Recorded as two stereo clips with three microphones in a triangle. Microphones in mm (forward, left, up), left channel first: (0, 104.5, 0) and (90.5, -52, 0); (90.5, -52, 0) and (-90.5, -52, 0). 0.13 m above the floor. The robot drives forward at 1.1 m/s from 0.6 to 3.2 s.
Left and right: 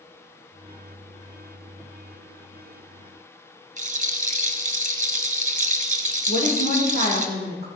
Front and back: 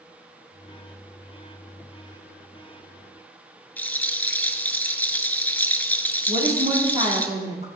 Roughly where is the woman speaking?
Behind left.